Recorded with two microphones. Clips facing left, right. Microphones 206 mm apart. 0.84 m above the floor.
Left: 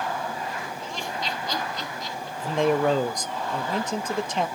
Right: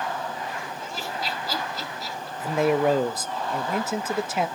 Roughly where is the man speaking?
Centre.